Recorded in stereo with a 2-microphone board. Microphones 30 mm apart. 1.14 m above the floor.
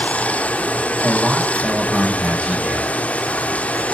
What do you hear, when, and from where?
0.0 s running water: 50° left (ahead or behind), 1.0 m
1.0 s a man speaking: 35° right (ahead or behind), 5 m